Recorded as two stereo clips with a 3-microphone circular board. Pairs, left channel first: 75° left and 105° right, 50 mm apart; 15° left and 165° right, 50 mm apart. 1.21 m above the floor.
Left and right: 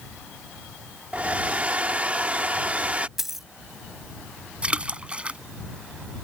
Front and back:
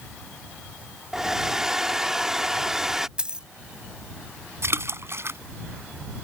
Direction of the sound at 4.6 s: 165° right.